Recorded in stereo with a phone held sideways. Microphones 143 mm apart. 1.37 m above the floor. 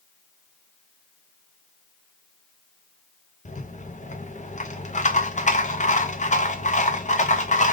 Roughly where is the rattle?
Left.